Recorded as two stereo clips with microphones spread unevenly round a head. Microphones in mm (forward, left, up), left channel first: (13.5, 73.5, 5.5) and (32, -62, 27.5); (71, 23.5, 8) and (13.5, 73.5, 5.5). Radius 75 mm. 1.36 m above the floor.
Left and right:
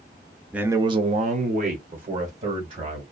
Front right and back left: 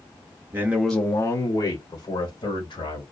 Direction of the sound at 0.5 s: 170° right.